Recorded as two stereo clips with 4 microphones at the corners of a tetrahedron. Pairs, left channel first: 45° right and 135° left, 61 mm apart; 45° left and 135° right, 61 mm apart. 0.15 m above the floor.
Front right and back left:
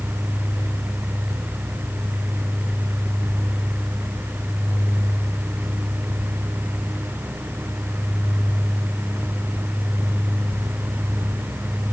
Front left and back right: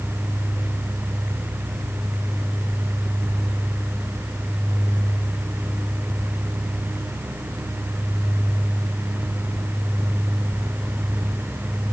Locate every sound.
Only background noise.